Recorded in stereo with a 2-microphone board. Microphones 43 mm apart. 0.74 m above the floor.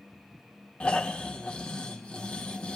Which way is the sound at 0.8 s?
25° left (ahead or behind).